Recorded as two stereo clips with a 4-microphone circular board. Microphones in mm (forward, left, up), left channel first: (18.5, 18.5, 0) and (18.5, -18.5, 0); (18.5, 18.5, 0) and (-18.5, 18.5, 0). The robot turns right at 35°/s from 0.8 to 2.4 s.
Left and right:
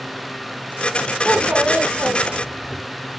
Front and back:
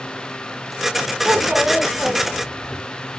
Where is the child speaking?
145° right, 2 m; by 2.8 s 105° right, 2 m.